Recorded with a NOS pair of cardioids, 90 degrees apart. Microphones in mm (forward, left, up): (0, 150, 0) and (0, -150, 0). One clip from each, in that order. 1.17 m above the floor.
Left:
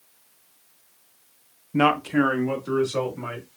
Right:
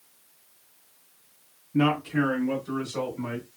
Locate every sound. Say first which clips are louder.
1.7 s a man speaking: left 4 dB; 40° left, 0.7 m; by 3.5 s 60° left, 3 m